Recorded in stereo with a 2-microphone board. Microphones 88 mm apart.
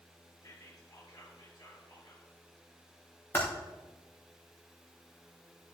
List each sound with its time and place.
0.4 s whispering: 40° left (ahead or behind), 5 m
3.3 s typing on a keyboard: 25° left (ahead or behind), 5 m